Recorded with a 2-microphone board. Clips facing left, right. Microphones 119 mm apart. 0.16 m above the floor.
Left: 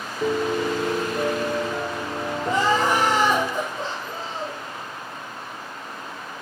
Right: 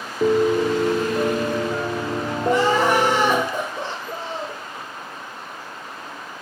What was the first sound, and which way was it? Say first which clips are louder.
A piano: right 6 dB; 40° right (ahead or behind).